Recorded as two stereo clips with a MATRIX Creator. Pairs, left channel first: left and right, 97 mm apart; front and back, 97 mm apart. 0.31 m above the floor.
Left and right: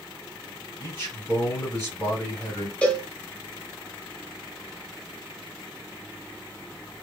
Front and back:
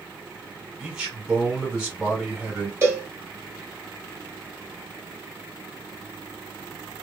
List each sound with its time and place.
0.8 s a man speaking: 110° left, 1.7 m
2.8 s a cowbell: 155° left, 1.0 m